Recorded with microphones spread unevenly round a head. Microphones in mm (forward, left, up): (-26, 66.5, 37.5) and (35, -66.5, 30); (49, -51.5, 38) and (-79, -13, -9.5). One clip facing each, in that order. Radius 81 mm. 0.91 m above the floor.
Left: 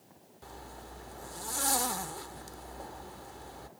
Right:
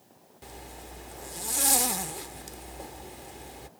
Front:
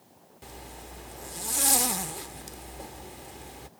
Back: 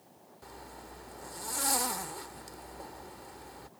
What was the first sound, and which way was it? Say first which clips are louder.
A zipper: right 2 dB, front 3 dB; 5° left.